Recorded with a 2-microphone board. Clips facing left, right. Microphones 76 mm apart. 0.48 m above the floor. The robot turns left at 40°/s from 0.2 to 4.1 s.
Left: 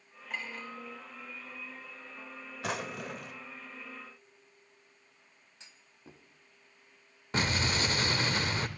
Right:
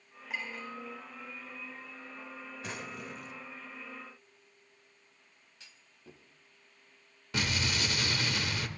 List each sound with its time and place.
0.3 s a clink: 10° right (ahead or behind), 5.5 m; by 0.7 s 5° left (ahead or behind), 5.5 m
2.6 s a drawer: 95° left, 0.6 m; by 3.4 s 65° left, 0.6 m
5.6 s a clunk: 25° left (ahead or behind), 1.0 m
7.3 s an explosion: 35° left (ahead or behind), 0.9 m